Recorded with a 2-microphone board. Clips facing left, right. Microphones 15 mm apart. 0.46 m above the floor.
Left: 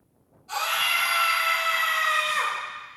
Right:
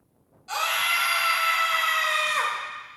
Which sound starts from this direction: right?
A scream, at 0.5 s.